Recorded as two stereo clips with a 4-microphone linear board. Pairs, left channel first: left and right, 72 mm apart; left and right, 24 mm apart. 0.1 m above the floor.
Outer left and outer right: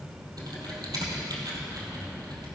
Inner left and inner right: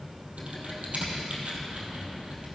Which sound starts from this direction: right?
Typing on a keyboard, at 0.4 s.